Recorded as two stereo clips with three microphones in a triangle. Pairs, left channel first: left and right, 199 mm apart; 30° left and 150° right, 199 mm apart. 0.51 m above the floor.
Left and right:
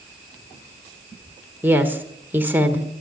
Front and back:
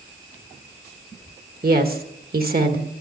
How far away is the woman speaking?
About 1.6 m.